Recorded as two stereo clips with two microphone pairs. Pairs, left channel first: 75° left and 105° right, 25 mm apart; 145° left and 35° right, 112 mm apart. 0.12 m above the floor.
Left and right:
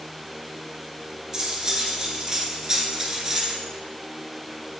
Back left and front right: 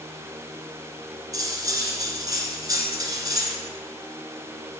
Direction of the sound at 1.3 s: 60° right.